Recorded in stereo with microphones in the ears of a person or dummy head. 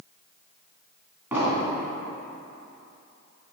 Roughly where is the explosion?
Centre.